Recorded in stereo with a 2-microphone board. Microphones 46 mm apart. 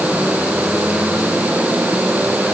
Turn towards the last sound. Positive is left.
No sound to turn to.